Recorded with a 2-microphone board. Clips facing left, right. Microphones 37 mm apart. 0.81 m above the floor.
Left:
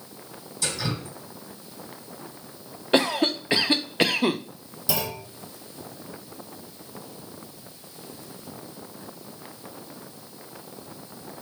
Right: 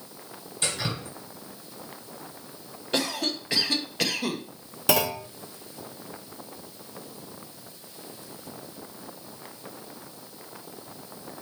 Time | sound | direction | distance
0.6 | dripping | 45° right (ahead or behind) | 2.5 m
2.9 | a cough | 30° left (ahead or behind) | 0.5 m
4.9 | a clunk | 65° right (ahead or behind) | 0.7 m